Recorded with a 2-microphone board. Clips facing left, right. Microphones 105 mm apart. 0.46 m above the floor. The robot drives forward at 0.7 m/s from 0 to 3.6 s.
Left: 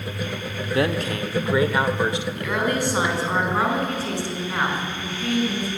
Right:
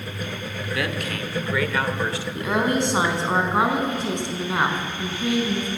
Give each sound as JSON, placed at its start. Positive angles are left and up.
{"t": 0.7, "sound": "a man speaking", "side_deg": 35, "distance_m": 1.0}
{"t": 2.4, "sound": "a woman speaking", "side_deg": -25, "distance_m": 3.0}